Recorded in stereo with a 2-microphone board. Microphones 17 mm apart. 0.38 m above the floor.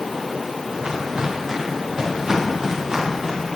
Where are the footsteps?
50° right (ahead or behind), 3 m; by 3.4 s 25° right (ahead or behind), 5 m.